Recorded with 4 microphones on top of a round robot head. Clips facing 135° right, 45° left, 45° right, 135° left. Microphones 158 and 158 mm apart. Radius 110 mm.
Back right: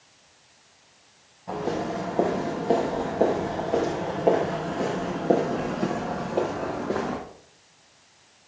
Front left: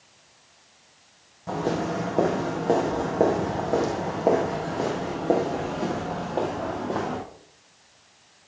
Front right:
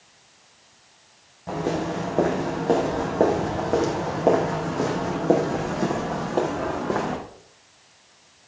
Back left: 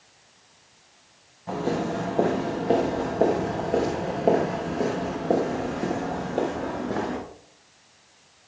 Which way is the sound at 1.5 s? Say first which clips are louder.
Front left 2 dB, front right 1 dB; 15° left.